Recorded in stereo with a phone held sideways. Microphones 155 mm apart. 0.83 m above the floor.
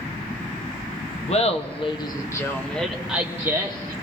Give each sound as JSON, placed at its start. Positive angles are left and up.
{"t": 1.3, "sound": "laughter", "side_deg": 45, "distance_m": 1.2}